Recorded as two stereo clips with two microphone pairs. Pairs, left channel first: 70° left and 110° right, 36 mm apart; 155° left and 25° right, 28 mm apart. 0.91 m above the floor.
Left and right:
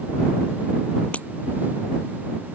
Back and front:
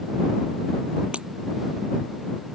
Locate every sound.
1.1 s breaking glass: 20° left